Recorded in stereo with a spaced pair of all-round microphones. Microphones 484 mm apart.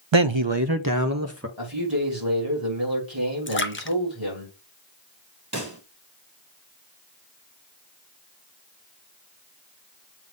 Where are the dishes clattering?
I don't hear dishes clattering.